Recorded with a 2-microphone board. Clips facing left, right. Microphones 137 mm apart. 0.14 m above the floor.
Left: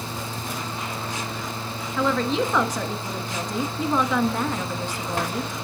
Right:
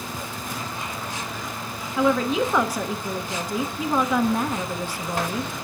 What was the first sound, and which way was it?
A woman speaking, 10° right (ahead or behind).